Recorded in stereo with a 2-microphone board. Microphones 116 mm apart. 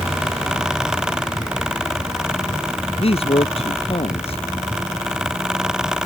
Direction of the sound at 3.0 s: 60° left (ahead or behind).